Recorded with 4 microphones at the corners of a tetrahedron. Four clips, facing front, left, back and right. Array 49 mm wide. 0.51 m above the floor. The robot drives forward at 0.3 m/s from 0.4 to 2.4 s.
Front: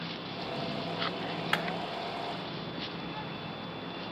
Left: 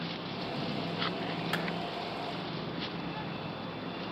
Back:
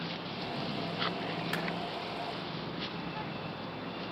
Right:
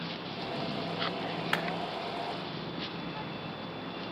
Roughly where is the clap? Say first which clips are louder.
Right 4 dB, front 7 dB; ahead right.